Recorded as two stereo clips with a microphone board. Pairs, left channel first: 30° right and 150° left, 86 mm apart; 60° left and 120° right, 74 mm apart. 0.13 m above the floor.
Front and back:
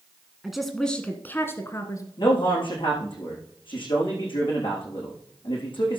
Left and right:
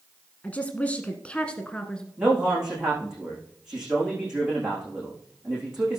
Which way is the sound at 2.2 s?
40° right.